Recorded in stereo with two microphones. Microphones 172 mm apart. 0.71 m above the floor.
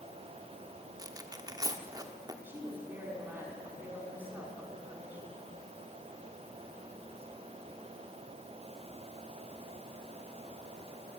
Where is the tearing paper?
20° right (ahead or behind), 1.2 m.